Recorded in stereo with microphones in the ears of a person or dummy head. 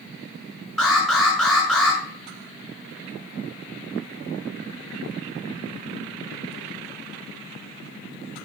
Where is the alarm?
Centre (ahead or behind), 6 m.